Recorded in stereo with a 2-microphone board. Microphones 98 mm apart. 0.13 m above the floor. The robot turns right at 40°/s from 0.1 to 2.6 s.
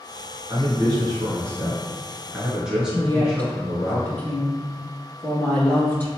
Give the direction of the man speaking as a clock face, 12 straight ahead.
3 o'clock.